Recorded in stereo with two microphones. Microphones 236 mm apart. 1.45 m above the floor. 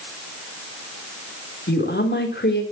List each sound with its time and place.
1.7 s a woman speaking: 50° left (ahead or behind), 3.5 m